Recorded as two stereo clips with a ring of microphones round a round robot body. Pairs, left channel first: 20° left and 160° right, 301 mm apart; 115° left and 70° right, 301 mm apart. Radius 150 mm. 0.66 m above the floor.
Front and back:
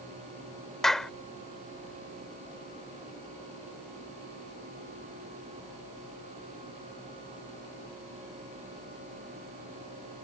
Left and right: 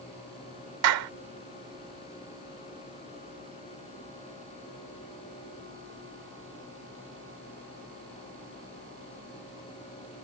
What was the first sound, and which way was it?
A clap, 65° right.